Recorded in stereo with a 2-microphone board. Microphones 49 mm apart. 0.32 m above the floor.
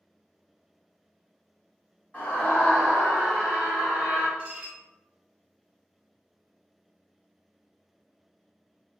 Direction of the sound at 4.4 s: 25° right (ahead or behind).